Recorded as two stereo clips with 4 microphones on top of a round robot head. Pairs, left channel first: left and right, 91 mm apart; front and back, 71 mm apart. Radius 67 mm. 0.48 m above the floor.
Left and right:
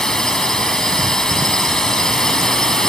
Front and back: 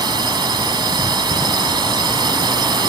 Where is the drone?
175° left.